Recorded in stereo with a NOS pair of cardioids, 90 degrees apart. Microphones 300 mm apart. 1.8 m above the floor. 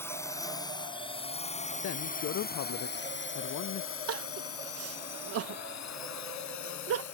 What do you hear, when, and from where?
0.0 s a drone: 10° left; by 7.1 s 70° left
1.8 s a man speaking: 55° left
4.1 s crying: 50° right